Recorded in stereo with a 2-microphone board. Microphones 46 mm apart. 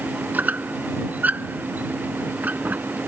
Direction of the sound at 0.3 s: 45° right (ahead or behind).